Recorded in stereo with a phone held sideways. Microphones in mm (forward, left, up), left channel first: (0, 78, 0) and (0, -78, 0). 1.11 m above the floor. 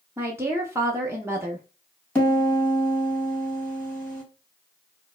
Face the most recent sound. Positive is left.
turn(degrees=15)  # may be behind; listen again after turning